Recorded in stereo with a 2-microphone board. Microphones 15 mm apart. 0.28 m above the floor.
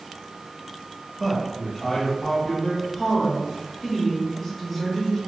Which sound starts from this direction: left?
A woman speaking, at 2.8 s.